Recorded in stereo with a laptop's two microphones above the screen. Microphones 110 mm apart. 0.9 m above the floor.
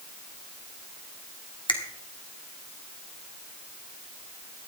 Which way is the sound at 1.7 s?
50° left (ahead or behind).